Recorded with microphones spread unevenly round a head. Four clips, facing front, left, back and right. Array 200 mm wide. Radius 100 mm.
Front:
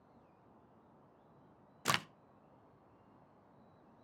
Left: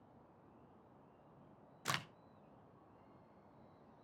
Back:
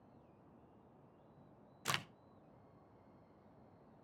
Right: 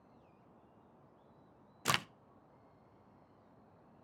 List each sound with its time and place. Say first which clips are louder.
1.9 s a crack: right 7 dB, front 6 dB; 30° right, 0.6 m